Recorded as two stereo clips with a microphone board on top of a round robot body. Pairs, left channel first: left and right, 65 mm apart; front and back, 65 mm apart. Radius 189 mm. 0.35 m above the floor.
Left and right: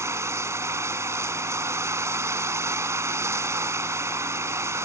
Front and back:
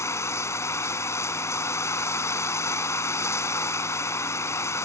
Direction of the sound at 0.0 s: 45° right.